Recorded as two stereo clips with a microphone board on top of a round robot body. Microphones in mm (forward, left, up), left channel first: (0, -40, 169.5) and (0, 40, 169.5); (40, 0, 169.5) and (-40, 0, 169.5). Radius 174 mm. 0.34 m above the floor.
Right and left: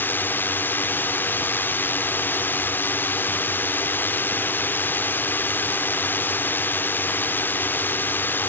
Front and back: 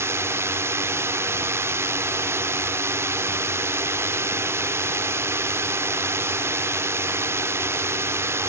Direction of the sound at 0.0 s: 140° right.